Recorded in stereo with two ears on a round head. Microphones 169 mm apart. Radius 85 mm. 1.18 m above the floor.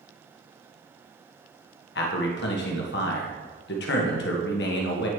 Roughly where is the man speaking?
Left.